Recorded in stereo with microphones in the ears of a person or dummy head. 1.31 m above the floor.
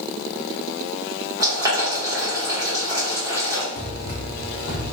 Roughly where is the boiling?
Centre.